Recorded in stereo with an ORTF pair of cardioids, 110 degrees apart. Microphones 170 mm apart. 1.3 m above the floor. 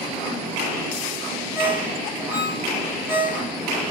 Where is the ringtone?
10° right, 0.8 m.